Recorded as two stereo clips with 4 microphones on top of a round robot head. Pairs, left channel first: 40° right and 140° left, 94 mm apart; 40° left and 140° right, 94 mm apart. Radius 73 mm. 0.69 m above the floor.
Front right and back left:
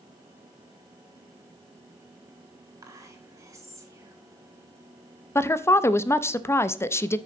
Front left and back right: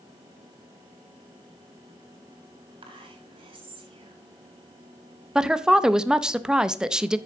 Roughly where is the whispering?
Behind.